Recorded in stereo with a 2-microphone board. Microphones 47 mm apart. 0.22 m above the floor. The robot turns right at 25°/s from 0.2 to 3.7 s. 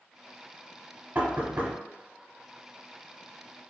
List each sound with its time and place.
1.1 s knocking: 45° right (ahead or behind), 1.0 m; by 1.8 s 50° right (ahead or behind), 1.0 m